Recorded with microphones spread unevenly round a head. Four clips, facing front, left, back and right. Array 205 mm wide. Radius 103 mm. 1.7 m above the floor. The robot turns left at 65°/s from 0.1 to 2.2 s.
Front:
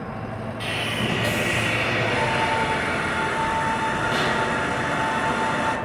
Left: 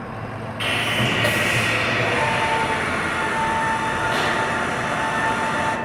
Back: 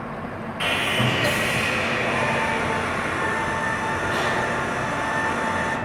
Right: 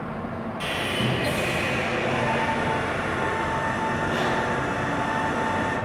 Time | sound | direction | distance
0.6 | sawing | 150° left | 2 m